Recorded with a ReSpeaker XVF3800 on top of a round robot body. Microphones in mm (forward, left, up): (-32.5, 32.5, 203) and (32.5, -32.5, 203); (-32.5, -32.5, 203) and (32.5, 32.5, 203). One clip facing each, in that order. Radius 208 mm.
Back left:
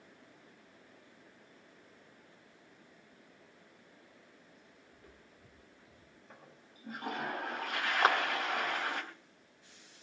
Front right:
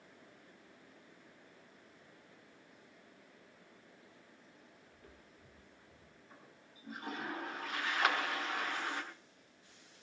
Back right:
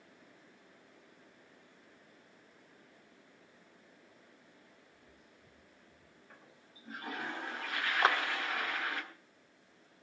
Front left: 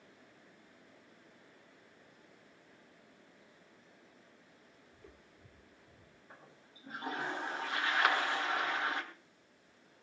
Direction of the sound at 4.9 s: 60° left.